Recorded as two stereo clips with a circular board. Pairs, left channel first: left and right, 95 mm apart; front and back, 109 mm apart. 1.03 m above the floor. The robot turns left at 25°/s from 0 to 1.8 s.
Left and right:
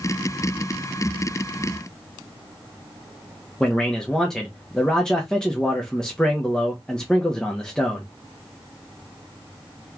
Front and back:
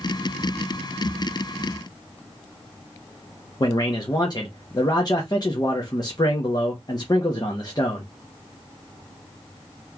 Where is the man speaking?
15° left, 1.0 m.